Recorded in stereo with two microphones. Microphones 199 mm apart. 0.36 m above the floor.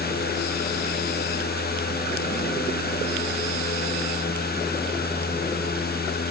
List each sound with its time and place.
Only background noise.